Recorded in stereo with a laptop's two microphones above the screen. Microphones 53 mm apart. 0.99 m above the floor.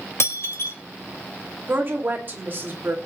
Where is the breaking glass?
60° left (ahead or behind), 3 m.